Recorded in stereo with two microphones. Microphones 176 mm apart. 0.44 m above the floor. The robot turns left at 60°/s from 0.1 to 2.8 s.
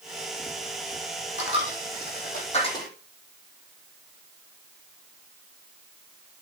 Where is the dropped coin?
75° left (ahead or behind), 4 m; by 2.9 s 20° left (ahead or behind), 4 m.